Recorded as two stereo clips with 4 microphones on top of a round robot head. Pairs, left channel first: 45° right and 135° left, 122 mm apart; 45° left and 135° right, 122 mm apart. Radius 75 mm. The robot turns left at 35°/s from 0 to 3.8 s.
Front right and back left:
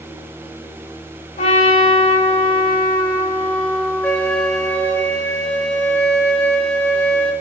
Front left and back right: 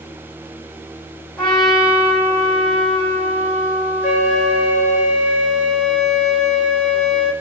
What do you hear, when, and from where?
1.4 s a trumpet: 40° right, 1.2 m; by 5.0 s 125° right, 1.2 m
4.0 s a flute: 30° left, 0.8 m